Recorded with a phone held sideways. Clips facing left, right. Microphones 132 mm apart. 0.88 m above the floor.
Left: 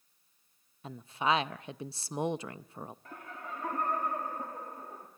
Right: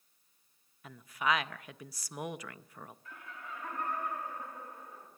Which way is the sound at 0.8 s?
30° left (ahead or behind).